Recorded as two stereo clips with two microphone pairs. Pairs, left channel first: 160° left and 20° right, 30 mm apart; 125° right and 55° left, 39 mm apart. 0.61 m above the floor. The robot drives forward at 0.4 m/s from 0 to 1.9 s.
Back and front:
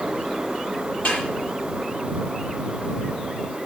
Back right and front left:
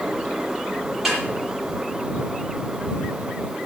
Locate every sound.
1.1 s a snare drum: 145° left, 10 m